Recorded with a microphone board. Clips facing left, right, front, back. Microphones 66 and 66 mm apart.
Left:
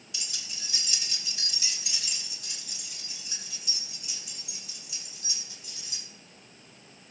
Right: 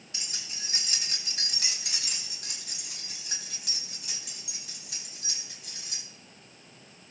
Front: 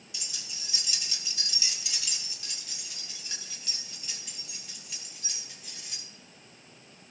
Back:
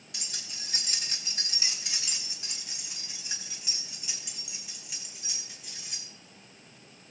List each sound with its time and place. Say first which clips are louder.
0.1 s keys jangling: even, back 1 dB; 145° right, 2.5 m; by 6.0 s 90° right, 5 m